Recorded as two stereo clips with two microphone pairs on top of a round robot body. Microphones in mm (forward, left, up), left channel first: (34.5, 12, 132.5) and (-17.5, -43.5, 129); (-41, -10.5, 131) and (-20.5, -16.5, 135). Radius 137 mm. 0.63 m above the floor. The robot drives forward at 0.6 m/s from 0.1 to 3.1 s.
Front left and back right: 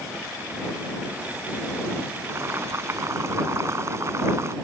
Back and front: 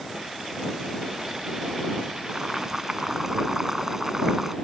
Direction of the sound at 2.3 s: 80° right.